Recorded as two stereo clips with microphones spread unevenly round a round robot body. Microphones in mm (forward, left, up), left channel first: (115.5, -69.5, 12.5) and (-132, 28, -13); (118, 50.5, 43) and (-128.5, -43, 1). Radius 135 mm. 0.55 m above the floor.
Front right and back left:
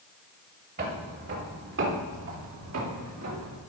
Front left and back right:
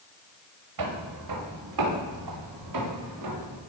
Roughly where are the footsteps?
Behind right.